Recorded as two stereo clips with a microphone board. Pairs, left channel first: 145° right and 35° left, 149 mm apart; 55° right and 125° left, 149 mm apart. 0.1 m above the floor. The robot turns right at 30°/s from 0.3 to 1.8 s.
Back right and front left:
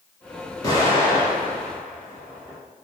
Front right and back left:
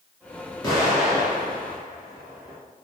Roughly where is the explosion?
Right.